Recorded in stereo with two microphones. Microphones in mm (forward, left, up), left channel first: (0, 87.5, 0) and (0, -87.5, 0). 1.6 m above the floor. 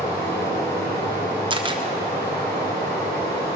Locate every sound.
0.0 s running water: 20° left (ahead or behind), 7 m
1.5 s a camera shutter: 30° right (ahead or behind), 1.0 m